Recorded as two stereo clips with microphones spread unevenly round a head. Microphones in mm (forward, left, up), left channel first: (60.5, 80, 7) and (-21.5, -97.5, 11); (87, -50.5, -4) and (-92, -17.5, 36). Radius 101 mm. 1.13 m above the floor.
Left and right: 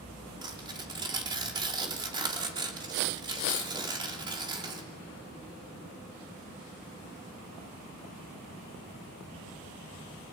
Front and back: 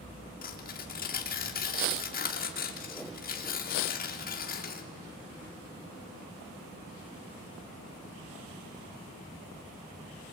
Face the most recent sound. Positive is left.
turn(degrees=-45)